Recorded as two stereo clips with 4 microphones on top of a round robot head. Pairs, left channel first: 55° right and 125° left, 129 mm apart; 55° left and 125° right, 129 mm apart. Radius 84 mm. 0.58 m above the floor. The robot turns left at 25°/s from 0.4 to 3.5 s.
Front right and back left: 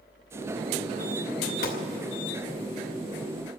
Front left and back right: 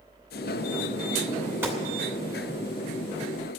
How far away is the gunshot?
About 2.5 m.